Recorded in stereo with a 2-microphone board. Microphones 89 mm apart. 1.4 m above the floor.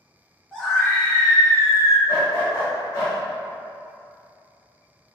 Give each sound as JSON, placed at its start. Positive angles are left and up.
{"t": 0.5, "sound": "a scream", "side_deg": 10, "distance_m": 1.7}
{"t": 2.1, "sound": "a dog barking", "side_deg": 35, "distance_m": 1.8}